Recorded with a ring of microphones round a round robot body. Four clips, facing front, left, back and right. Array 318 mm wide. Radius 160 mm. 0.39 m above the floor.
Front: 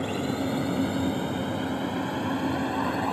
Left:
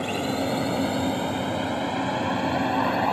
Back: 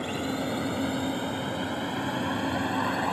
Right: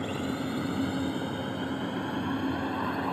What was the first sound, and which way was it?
A drone, 90° left.